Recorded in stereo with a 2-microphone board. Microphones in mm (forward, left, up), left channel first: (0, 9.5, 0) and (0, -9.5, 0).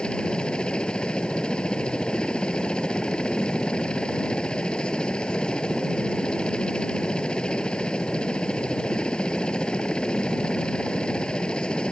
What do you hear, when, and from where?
0.0 s a helicopter: 55° left (ahead or behind)